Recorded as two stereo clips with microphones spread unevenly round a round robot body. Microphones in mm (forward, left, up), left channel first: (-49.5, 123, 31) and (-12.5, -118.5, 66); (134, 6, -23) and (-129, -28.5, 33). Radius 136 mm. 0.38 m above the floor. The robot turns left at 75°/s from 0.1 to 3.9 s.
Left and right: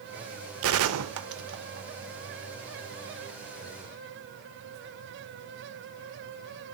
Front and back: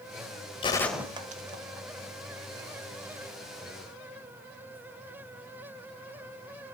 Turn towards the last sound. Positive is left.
turn(degrees=60)